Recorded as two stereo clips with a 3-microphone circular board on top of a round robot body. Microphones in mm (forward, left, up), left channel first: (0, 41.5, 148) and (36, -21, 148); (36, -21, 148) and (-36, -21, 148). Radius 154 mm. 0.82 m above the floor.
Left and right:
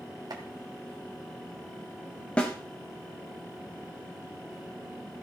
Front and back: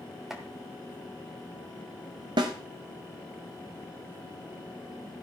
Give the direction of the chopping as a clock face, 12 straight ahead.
3 o'clock.